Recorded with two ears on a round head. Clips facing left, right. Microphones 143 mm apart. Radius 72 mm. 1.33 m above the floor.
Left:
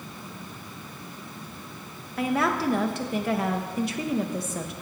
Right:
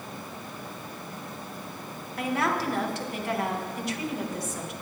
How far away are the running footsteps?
No running footsteps in this recording.